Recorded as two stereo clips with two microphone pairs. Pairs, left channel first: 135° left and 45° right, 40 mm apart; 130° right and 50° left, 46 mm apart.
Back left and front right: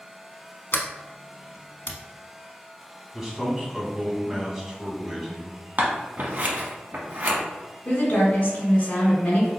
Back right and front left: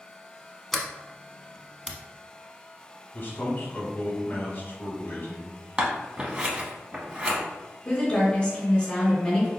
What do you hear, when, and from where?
0.7 s a sliding door: 135° left, 0.6 m
3.1 s a man speaking: 135° right, 1.2 m
5.8 s scissors: 15° right, 1.0 m
7.8 s a woman speaking: 165° left, 1.8 m